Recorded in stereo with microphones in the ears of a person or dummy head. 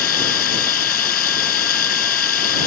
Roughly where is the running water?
Left.